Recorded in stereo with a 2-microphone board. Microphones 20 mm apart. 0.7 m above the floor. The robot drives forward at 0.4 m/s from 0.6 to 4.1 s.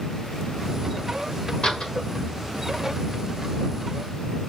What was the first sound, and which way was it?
A door slam, 55° left (ahead or behind).